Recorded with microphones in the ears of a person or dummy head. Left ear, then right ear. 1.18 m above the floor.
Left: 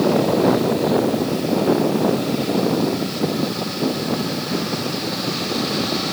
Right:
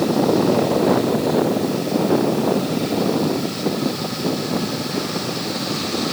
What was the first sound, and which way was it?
Only background noise.